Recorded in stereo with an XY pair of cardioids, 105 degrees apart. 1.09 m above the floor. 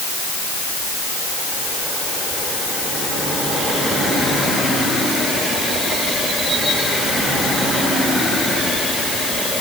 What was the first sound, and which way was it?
Only background noise.